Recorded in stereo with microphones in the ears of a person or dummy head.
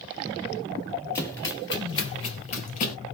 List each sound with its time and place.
1.1 s running footsteps: 10° left (ahead or behind), 1.9 m; by 3.0 s 40° left (ahead or behind), 1.9 m